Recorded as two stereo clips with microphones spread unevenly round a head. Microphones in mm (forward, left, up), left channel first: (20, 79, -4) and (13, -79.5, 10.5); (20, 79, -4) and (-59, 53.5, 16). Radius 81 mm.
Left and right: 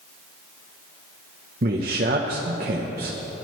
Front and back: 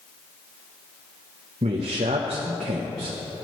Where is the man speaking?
130° right, 0.9 m.